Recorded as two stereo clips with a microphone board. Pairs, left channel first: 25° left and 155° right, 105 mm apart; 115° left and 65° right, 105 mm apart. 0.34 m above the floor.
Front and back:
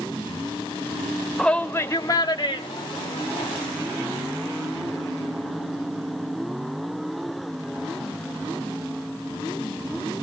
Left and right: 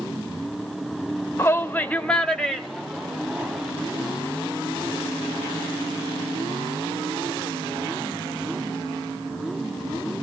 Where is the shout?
100° left, 0.9 m; by 3.7 s 15° left, 2.0 m.